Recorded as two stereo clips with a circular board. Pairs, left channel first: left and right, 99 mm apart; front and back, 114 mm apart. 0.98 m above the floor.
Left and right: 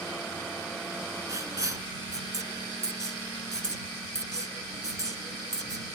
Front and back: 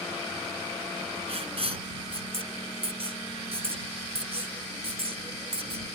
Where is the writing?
145° right.